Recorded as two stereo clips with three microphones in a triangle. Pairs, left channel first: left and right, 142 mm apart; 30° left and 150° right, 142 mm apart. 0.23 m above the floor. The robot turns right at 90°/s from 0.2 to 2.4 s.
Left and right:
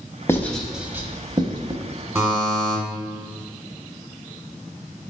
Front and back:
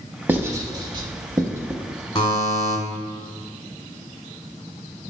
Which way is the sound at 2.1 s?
25° right.